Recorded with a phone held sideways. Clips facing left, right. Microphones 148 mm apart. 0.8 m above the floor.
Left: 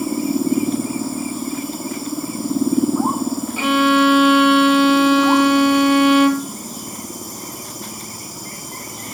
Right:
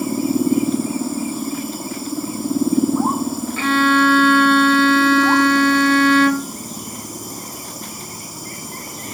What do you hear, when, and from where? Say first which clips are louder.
3.6 s a violin: left 1 dB; 15° left (ahead or behind), 1.4 m